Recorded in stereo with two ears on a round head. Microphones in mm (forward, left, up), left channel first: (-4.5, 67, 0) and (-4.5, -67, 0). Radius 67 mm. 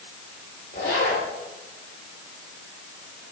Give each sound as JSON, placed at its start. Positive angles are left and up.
{"t": 0.7, "sound": "a zipper", "side_deg": 50, "distance_m": 5.5}